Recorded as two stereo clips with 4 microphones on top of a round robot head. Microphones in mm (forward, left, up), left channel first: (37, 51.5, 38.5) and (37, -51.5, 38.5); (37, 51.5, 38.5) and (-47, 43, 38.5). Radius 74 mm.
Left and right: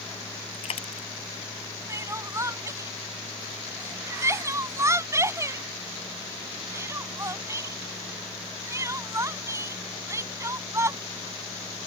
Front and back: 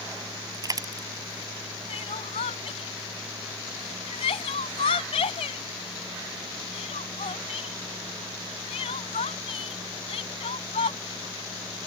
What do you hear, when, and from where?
0.5 s a dropped coin: 140° left
1.9 s crying: 25° right